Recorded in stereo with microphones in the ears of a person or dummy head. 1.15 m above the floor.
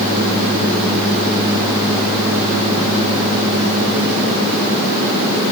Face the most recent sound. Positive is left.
No sound to turn to.